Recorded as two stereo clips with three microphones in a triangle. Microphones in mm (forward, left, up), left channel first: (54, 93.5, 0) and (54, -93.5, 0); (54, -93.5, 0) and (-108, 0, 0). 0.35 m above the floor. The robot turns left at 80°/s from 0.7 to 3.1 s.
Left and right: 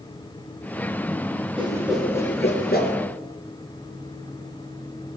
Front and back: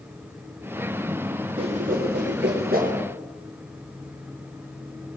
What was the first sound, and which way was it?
A whoosh, 150° right.